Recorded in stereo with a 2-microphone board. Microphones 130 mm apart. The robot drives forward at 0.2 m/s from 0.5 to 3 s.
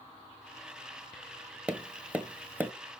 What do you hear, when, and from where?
1.7 s tapping: 10° right (ahead or behind), 0.8 m; by 2.7 s 15° right (ahead or behind), 0.6 m